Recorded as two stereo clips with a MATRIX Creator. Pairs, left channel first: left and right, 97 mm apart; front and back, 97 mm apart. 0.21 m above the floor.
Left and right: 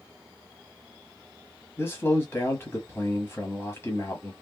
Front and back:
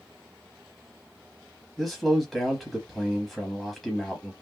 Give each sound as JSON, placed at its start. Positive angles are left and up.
{"t": 1.8, "sound": "a man speaking", "azimuth_deg": 85, "distance_m": 1.0}